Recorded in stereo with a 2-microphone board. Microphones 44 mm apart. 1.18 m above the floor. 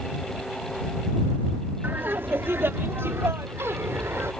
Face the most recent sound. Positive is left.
turn(degrees=-80)